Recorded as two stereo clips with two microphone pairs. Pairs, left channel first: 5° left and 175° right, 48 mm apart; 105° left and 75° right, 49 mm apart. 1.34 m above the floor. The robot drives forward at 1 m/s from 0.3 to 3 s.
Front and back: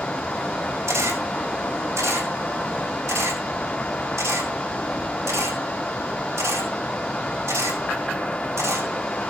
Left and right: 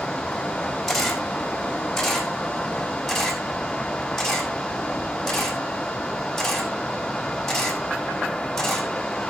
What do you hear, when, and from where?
0.9 s a camera shutter: 170° right, 5 m; by 8.9 s 175° right, 7.5 m